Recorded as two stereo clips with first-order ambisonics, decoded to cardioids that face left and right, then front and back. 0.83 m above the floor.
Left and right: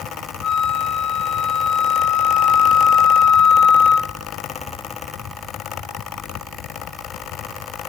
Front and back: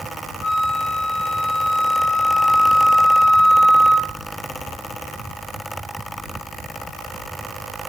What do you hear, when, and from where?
0.4 s a flute: 25° left, 2 m